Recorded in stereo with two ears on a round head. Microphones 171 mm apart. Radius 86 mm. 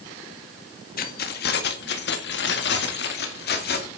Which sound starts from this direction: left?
Keys jangling, at 1.0 s.